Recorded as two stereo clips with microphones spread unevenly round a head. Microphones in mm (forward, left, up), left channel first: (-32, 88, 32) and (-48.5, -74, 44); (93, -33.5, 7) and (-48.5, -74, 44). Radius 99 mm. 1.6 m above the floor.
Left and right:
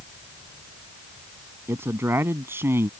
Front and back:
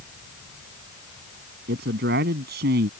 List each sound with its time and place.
1.7 s a man speaking: 170° right